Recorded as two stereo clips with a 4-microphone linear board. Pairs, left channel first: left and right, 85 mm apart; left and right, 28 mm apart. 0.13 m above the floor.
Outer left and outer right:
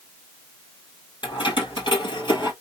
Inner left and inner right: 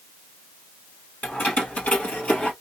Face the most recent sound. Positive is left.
turn(degrees=60)  # may be behind; listen again after turning